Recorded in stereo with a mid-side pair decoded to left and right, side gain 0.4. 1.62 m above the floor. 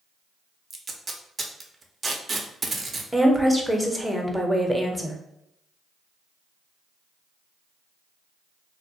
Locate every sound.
0.7 s tape being pulled: 40° right, 0.5 m
3.1 s a woman speaking: 5° right, 0.6 m